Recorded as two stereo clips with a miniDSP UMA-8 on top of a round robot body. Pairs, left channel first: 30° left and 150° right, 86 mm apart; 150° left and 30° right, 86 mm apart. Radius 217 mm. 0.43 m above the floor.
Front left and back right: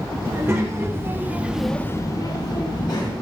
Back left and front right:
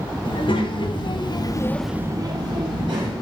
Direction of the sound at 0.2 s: 155° left.